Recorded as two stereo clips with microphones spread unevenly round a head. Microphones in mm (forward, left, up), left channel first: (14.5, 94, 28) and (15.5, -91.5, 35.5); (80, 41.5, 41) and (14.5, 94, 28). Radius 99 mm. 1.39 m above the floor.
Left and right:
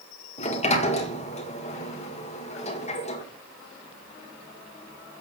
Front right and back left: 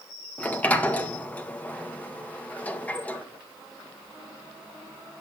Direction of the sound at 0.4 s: 35° left.